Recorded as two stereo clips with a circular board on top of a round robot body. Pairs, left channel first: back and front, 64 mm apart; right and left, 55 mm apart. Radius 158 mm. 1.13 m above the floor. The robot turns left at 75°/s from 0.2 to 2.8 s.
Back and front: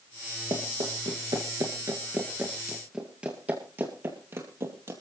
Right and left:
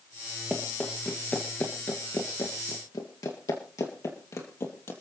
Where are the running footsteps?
15° left, 1.9 m; by 4.9 s 50° right, 2.5 m.